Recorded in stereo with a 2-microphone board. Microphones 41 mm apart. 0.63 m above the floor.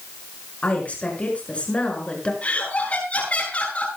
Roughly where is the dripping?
I don't hear dripping.